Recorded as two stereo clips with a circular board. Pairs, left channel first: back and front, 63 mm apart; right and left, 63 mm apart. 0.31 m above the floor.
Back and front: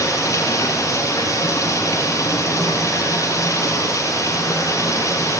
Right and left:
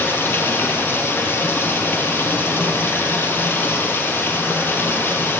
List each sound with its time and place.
0.0 s running water: 145° right, 3.5 m